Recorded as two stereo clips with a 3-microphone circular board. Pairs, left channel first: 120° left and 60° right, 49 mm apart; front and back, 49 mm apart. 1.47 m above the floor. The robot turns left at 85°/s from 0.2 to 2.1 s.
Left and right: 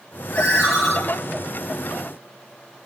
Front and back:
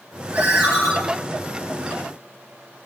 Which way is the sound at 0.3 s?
160° left.